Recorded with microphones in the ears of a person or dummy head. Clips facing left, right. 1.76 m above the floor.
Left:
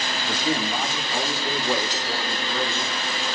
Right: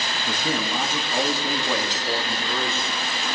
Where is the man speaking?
90° right, 3.5 m; by 2.9 s 70° right (ahead or behind), 5.5 m.